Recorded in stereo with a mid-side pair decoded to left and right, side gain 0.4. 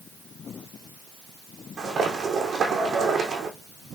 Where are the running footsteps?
60° right, 5.5 m.